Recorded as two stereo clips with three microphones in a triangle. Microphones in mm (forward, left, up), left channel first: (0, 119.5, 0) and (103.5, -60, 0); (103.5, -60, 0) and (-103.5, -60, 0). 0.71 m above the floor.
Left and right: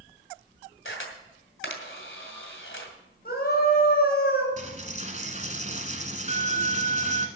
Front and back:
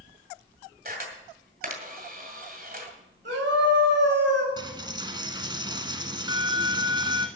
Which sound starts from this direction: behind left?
A camera shutter, at 0.8 s.